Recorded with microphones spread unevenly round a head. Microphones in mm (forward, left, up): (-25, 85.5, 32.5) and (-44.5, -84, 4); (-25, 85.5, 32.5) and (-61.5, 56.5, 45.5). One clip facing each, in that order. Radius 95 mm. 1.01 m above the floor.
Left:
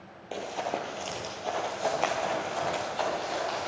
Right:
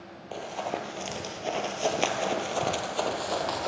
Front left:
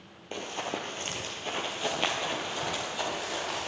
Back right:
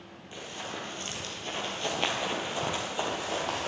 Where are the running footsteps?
25° left, 1.1 m; by 3.7 s 115° right, 1.6 m.